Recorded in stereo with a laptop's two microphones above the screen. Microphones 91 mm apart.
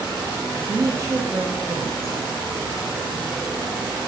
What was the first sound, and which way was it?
A woman speaking, 35° right (ahead or behind).